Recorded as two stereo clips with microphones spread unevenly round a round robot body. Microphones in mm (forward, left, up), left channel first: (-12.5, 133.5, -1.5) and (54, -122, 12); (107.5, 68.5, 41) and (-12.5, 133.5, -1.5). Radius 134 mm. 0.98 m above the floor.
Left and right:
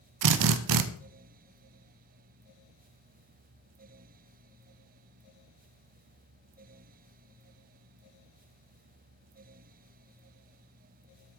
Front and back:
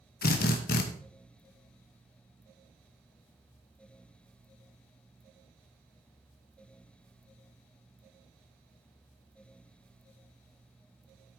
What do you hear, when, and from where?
0.2 s a drill: 70° right, 0.7 m